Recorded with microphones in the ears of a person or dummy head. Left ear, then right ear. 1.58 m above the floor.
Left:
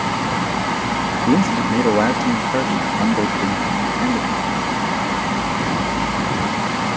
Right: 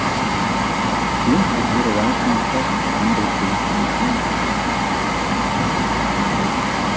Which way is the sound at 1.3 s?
60° left (ahead or behind).